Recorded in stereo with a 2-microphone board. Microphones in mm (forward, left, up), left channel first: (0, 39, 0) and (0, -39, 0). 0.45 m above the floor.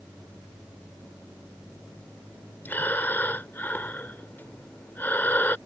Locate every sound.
2.6 s breathing: 25° left (ahead or behind)